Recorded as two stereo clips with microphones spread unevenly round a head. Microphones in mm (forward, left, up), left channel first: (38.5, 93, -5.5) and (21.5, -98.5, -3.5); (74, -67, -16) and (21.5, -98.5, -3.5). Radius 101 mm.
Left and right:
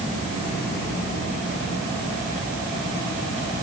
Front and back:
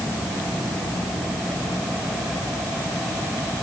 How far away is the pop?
I don't hear a pop.